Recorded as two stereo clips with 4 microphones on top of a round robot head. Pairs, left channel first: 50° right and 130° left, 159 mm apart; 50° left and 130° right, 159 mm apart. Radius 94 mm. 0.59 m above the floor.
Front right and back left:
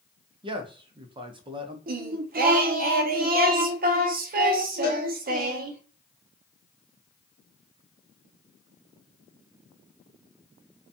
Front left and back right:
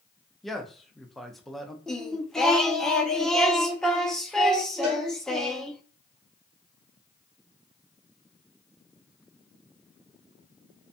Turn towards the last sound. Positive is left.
turn(degrees=-80)